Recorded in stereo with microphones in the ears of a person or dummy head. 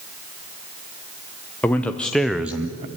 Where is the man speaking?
10° left (ahead or behind), 1.0 m; by 2.9 s 20° right (ahead or behind), 0.5 m.